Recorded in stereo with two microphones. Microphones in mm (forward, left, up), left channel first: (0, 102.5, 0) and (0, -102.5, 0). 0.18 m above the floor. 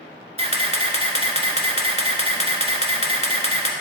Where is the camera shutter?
30° right (ahead or behind), 1.0 m.